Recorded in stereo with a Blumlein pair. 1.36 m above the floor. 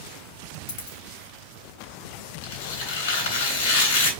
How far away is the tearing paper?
About 3.5 m.